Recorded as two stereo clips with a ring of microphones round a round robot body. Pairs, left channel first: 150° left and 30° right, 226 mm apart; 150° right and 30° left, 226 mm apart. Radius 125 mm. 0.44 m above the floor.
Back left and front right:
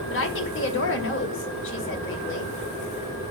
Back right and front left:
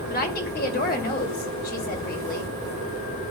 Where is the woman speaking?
165° left, 2 m.